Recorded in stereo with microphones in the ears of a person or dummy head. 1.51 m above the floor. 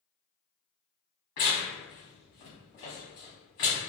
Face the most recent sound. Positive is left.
turn(degrees=20)  # may be behind; listen again after turning